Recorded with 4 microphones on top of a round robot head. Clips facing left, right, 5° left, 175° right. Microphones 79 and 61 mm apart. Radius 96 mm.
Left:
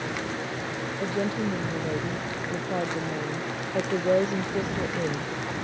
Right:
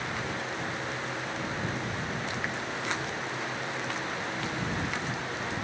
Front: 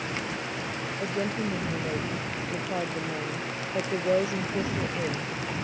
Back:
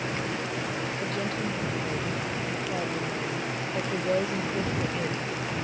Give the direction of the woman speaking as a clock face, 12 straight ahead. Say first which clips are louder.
Left 7 dB, front 4 dB; 10 o'clock.